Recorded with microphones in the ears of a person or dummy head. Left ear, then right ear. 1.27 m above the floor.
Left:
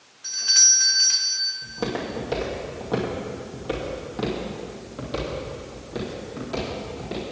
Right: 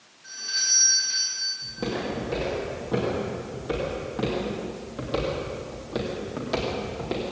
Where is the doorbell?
65° left (ahead or behind), 1.6 m.